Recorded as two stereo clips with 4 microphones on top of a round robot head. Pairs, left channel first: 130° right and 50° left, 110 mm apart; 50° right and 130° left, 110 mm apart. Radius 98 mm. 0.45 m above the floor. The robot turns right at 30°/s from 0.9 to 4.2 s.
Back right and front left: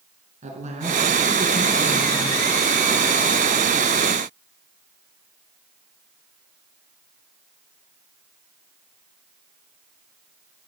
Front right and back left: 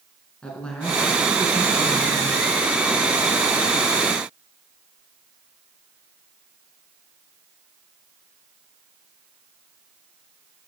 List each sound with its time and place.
0.4 s a woman speaking: 35° left, 5.5 m; by 2.6 s 85° left, 5.5 m